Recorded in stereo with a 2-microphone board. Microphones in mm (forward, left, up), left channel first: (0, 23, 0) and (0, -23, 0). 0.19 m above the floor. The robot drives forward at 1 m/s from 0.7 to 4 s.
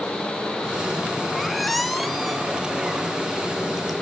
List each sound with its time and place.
1.4 s a squeak: centre (ahead or behind), 1.3 m